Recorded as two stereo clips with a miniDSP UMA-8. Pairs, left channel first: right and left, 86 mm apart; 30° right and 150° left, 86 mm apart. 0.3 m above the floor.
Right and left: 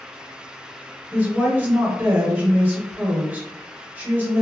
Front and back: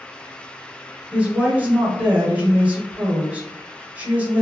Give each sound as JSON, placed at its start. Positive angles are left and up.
{"t": 1.1, "sound": "a woman speaking", "azimuth_deg": 105, "distance_m": 1.0}